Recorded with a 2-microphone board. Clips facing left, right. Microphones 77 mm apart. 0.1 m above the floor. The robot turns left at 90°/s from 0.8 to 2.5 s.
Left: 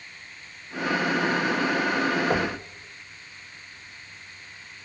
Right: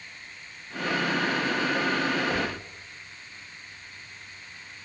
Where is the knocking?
40° left (ahead or behind), 3.5 m; by 2.6 s 55° left (ahead or behind), 3.5 m.